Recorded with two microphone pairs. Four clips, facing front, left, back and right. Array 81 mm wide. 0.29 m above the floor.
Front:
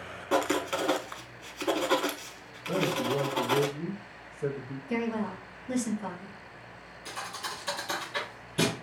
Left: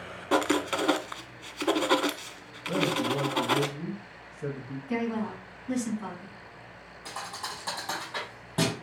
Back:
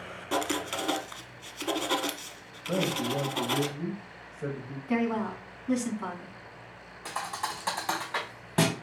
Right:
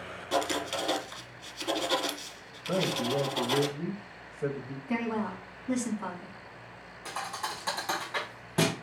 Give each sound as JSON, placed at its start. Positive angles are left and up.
{"t": 0.3, "sound": "writing", "azimuth_deg": 75, "distance_m": 0.6}
{"t": 2.7, "sound": "a man speaking", "azimuth_deg": -105, "distance_m": 1.2}
{"t": 4.9, "sound": "a woman speaking", "azimuth_deg": -155, "distance_m": 3.0}
{"t": 7.0, "sound": "a thud", "azimuth_deg": -175, "distance_m": 2.5}